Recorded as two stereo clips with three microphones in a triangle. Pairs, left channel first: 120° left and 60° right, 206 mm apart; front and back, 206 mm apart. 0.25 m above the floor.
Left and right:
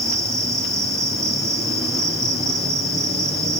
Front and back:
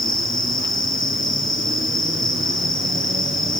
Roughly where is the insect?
Ahead.